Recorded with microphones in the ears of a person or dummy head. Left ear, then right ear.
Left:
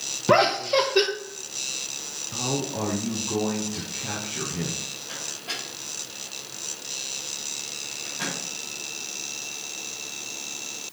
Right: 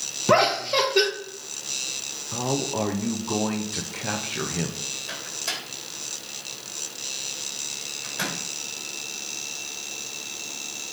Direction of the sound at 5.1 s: 65° right (ahead or behind).